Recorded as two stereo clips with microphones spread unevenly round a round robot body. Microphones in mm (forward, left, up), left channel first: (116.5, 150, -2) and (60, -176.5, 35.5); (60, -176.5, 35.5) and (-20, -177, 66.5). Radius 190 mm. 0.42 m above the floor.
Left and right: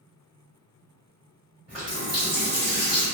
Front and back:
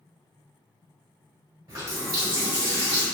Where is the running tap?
170° left, 1.4 m.